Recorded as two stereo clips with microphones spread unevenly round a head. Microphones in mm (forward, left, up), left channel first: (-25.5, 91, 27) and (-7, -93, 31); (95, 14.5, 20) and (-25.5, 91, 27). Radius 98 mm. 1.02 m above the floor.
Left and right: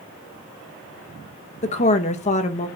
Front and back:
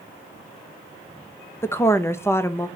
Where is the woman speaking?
40° left, 0.7 m.